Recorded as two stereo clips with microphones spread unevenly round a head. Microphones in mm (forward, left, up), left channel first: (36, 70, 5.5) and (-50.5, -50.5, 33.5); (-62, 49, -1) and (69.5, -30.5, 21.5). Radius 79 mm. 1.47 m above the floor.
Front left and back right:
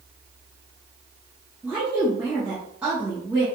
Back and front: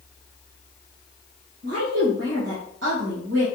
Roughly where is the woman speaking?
Ahead right.